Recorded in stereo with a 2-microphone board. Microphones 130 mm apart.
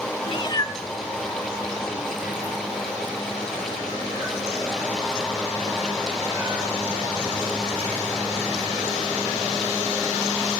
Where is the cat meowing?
45° left (ahead or behind), 0.6 m; by 10.6 s 20° right (ahead or behind), 8 m.